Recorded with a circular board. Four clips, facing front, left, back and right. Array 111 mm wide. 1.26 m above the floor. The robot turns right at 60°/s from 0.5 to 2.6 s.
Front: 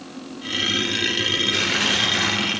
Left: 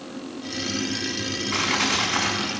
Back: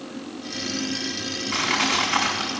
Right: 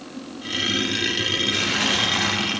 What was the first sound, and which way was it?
Crushing, 140° left.